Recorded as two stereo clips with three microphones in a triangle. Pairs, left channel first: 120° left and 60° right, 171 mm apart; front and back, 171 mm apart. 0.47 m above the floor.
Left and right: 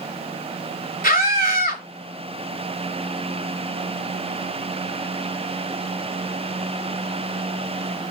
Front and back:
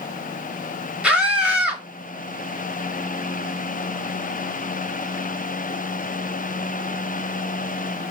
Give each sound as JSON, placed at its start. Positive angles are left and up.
{"t": 1.0, "sound": "a scream", "azimuth_deg": 95, "distance_m": 2.0}